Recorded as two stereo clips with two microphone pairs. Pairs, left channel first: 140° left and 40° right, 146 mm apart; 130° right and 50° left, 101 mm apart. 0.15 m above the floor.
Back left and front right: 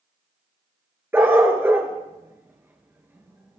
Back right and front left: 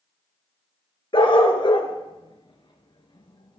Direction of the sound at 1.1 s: 115° right.